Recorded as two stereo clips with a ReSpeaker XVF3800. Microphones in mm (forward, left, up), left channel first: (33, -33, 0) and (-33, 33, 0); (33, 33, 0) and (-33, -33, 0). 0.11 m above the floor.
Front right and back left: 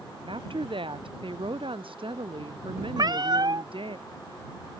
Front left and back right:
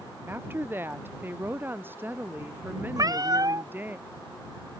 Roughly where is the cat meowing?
Behind.